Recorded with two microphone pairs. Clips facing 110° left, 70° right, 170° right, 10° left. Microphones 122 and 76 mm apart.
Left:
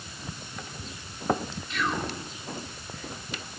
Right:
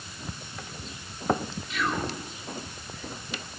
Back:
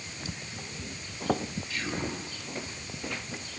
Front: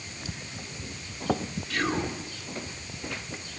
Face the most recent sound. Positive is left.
turn(degrees=15)